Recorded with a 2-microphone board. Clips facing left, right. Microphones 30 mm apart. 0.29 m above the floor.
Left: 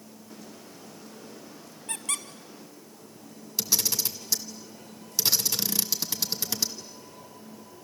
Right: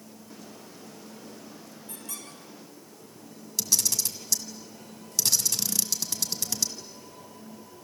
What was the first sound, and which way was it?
A squeak, 80° left.